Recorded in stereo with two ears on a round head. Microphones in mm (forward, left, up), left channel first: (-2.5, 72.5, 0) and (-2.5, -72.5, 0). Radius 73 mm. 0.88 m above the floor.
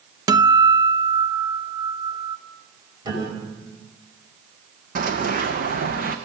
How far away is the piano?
About 5 m.